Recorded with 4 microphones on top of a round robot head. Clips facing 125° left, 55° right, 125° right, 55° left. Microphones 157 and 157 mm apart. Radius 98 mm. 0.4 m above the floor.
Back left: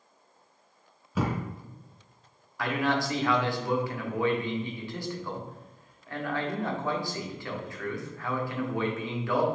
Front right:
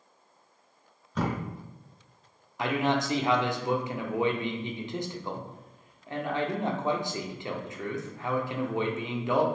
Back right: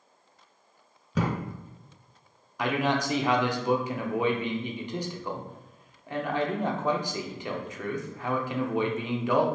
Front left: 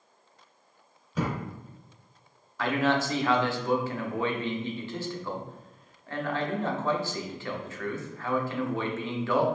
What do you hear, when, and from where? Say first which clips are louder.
1.1 s a thud: back left 1 dB, back right 2 dB; 150° right, 1.2 m
2.6 s a man speaking: front right 1 dB, front left 1 dB; 80° right, 0.8 m